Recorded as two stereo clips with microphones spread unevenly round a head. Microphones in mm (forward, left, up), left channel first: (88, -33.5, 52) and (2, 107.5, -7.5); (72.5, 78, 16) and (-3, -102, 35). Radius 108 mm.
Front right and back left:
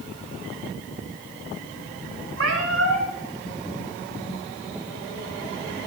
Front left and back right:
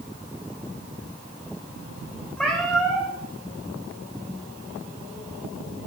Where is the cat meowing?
155° left, 2.5 m.